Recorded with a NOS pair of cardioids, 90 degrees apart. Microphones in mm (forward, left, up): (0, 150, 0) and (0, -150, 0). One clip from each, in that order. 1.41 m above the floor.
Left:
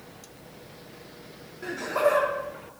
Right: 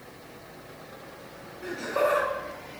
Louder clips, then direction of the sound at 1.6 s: Left 2 dB; 10° left.